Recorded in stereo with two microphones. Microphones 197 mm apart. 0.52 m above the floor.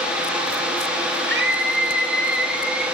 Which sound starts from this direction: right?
A scream, at 1.3 s.